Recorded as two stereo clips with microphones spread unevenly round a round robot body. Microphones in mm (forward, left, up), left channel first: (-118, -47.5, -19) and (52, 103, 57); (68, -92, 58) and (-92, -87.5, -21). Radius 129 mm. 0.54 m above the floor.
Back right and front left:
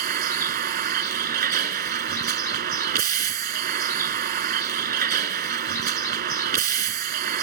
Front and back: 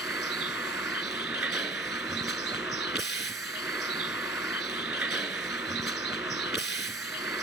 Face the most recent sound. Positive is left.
turn(degrees=90)